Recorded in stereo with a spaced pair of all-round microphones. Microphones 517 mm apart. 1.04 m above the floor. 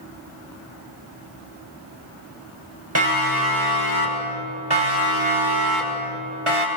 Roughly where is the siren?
Right.